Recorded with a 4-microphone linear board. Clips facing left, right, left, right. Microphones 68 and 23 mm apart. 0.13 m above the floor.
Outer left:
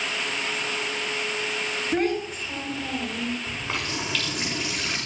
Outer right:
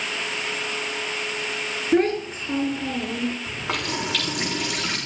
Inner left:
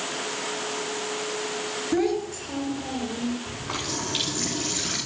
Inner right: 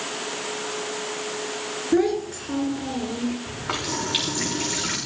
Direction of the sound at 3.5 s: 80° right.